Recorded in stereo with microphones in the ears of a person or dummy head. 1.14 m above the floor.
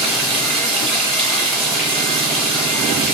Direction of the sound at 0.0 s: Centre (ahead or behind).